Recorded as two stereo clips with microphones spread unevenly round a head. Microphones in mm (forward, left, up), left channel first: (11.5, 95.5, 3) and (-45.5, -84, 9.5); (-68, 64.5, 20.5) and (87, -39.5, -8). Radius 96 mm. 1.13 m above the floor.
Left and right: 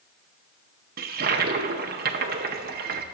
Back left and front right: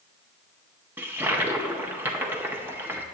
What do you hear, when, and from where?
1.0 s a toilet flushing: 100° right, 0.8 m